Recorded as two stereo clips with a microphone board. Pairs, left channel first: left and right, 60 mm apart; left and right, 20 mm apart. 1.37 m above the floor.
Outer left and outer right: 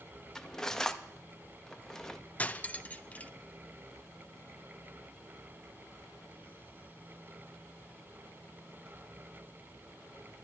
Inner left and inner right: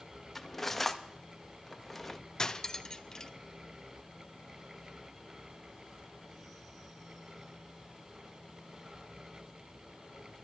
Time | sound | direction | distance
0.3 | cutlery clinking | 10° left (ahead or behind) | 0.7 m
2.4 | cutlery clinking | 25° left (ahead or behind) | 0.5 m